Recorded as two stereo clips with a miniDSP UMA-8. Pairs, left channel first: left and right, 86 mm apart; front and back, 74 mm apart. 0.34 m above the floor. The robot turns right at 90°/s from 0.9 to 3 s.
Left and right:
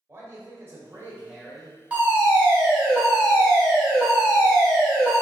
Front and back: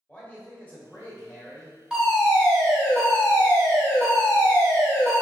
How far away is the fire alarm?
About 1.8 m.